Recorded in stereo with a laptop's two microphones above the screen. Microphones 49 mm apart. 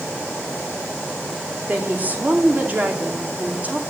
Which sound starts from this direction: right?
A woman speaking, at 1.7 s.